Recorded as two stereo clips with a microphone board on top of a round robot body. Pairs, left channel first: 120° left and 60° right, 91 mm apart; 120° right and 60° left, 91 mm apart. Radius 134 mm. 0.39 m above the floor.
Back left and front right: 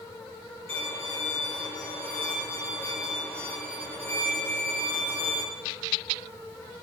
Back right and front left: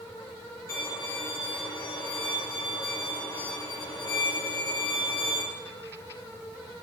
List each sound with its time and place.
0.7 s a violin: 175° right, 2.5 m